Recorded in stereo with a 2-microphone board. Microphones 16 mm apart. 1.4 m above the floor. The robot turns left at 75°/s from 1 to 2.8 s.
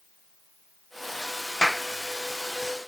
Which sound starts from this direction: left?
A clap, at 1.6 s.